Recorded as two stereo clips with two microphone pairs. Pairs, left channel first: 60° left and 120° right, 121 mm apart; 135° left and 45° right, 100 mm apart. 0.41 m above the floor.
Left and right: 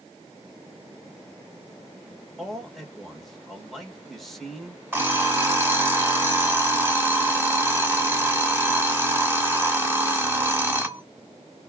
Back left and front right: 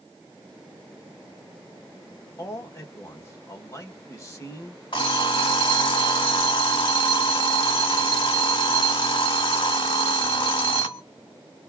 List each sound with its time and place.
2.4 s a man speaking: 150° left, 1.3 m
4.9 s an alarm clock: 170° left, 1.6 m